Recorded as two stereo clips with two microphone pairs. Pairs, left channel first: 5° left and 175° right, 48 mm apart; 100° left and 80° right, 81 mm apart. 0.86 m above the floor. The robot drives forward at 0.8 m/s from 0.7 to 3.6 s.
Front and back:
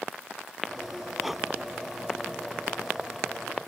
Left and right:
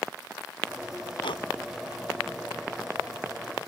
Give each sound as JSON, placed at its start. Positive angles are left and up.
{"t": 1.2, "sound": "breathing", "azimuth_deg": 100}